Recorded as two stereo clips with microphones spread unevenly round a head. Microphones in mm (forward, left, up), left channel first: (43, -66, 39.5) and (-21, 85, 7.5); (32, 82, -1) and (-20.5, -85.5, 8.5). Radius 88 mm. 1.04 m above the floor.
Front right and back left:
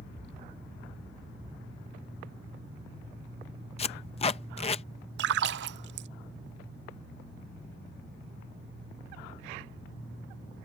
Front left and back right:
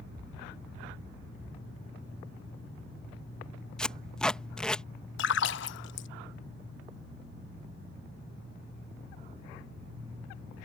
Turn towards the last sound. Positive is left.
turn(degrees=100)